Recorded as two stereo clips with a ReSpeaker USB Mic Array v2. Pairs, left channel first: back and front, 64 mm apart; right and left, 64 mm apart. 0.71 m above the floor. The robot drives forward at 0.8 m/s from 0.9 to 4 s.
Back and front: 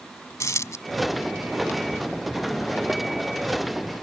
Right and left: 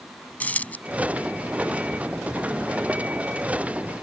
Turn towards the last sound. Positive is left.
turn(degrees=-170)